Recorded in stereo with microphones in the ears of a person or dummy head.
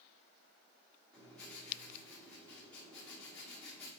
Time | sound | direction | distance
1.1 | writing | 5° left (ahead or behind) | 3 m